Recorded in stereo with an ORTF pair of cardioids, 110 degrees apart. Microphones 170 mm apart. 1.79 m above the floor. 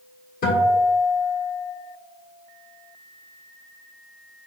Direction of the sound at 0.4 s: 60° left.